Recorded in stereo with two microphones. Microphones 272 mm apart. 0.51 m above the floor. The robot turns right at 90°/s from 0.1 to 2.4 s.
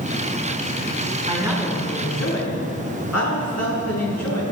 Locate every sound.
1.3 s a man speaking: 30° right, 5 m; by 4.4 s 75° left, 5 m